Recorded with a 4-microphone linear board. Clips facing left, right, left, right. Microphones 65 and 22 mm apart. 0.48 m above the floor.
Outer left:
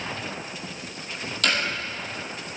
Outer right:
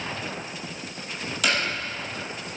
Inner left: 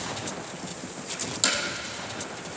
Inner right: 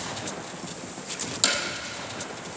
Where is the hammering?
5° right (ahead or behind), 6.5 m.